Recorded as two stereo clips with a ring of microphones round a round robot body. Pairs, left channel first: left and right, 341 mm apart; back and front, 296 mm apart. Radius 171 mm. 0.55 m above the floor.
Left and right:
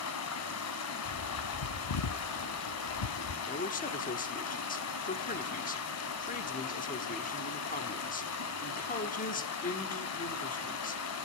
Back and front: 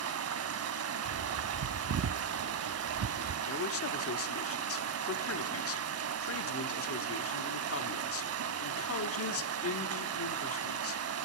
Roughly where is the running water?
Ahead left.